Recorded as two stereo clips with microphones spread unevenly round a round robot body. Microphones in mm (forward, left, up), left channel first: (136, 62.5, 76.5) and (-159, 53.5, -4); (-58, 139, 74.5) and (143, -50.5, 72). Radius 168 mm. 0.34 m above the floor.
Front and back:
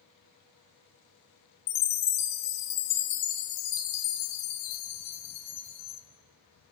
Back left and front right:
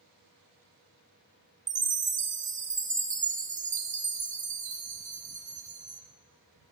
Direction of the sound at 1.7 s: 20° left.